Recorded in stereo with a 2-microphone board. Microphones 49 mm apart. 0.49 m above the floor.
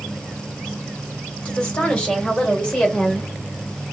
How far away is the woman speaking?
About 1.6 m.